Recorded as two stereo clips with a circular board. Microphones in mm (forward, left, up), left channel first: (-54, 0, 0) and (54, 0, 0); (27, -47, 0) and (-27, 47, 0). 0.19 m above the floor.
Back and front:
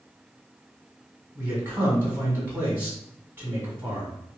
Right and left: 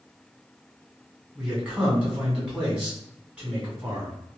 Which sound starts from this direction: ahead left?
A man speaking, at 1.4 s.